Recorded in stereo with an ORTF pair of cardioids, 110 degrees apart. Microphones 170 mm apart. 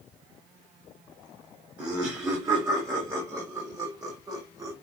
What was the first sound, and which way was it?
Laughter, 20° right.